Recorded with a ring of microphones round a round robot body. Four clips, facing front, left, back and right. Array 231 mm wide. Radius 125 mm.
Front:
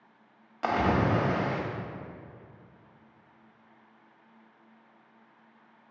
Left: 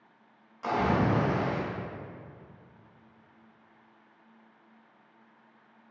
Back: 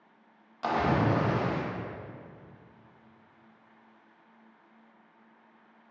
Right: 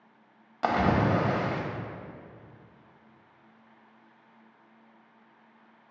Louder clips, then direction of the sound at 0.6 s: Right 2 dB, front 1 dB; 75° right.